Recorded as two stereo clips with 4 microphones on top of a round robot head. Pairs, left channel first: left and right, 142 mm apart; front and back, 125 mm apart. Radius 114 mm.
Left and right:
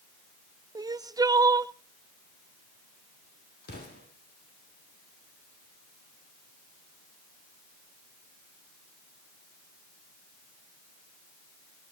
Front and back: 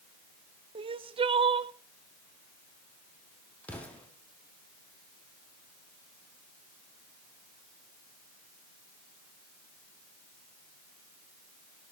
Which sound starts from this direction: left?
An explosion, at 3.6 s.